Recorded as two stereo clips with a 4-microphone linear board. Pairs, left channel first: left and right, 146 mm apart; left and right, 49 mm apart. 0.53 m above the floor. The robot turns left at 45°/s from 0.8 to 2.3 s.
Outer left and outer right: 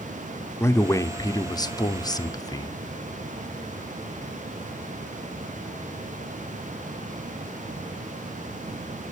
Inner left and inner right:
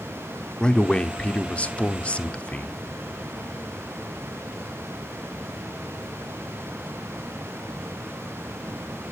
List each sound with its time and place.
0.6 s a man speaking: 20° left (ahead or behind), 0.7 m; by 2.8 s 25° left (ahead or behind), 0.7 m